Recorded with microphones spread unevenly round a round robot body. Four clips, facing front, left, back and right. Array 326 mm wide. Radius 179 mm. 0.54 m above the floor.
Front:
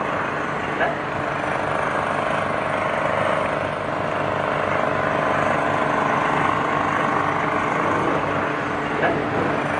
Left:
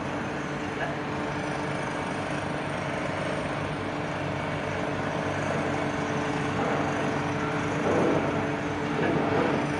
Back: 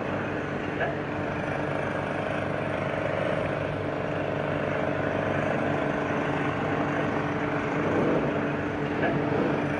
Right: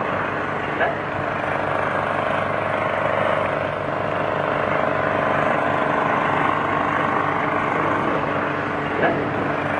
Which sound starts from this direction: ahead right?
An engine running, at 0.0 s.